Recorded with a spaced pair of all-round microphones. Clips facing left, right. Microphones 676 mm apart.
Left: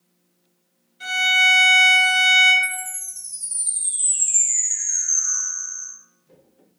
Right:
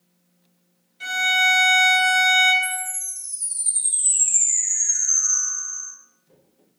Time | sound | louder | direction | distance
1.0 | a violin | right 1 dB | 25° right (ahead or behind) | 1.3 m
2.6 | a chime | right 3 dB | 60° right (ahead or behind) | 1.6 m